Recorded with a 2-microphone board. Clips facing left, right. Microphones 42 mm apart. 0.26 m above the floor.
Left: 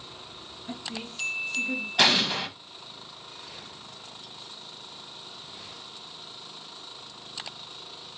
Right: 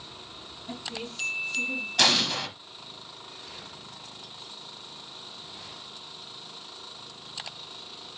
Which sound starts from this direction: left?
A woman speaking, at 0.7 s.